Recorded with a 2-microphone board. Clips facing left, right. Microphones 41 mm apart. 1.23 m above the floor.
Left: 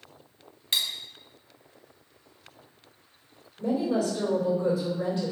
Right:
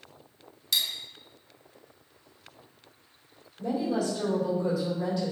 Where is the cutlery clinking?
30° left (ahead or behind), 1.1 m.